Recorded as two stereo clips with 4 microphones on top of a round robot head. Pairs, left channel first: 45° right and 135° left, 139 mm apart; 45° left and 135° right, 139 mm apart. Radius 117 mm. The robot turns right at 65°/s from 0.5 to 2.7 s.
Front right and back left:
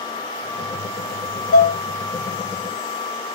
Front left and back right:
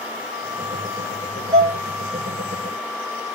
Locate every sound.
1.5 s dishes clattering: 75° right, 1.0 m; by 1.8 s 60° right, 1.0 m